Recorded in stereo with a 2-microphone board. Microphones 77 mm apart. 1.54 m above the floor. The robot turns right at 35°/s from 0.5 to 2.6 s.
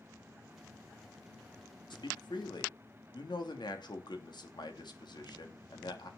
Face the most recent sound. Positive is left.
turn(degrees=70)  # may be behind; listen again after turning